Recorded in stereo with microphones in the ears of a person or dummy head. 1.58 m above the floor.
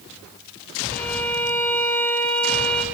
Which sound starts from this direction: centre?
A violin, at 0.9 s.